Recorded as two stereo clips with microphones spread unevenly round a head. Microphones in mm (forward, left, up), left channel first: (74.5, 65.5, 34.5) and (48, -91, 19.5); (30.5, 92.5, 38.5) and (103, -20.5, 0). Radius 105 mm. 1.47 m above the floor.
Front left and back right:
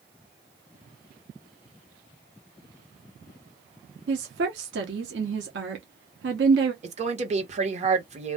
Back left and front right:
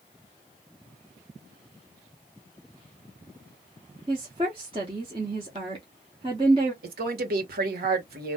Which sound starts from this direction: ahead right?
A woman speaking, at 6.8 s.